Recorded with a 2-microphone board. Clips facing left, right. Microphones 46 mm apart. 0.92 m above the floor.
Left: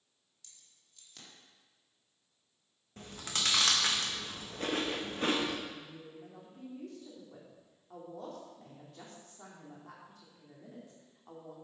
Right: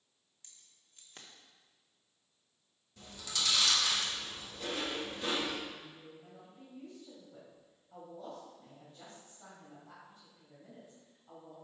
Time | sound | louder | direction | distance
0.4 | keys jangling | even | 35° right (ahead or behind) | 1.5 m
3.0 | chewing | left 2 dB | 45° left (ahead or behind) | 1.1 m
5.7 | a woman speaking | left 2 dB | 70° left (ahead or behind) | 2.5 m